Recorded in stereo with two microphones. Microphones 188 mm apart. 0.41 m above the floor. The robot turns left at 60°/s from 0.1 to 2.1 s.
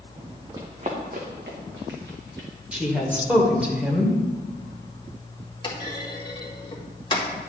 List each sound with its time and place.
0.5 s running footsteps: 20° right (ahead or behind), 1.4 m; by 2.5 s 75° right (ahead or behind), 3 m
2.7 s a woman speaking: 5° right (ahead or behind), 1.5 m
5.6 s a clunk: 25° left (ahead or behind), 1.4 m